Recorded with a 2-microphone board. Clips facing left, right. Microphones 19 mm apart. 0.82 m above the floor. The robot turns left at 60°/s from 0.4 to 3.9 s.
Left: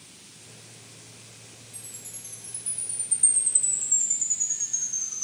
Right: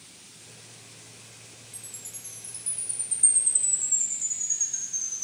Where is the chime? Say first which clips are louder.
Right 1 dB; 110° right, 2.5 m; by 5.2 s 120° left, 2.5 m.